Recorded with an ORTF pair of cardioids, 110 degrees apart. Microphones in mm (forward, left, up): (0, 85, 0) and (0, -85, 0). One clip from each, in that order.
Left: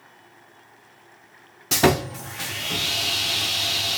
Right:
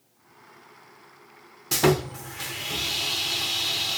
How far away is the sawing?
About 0.6 m.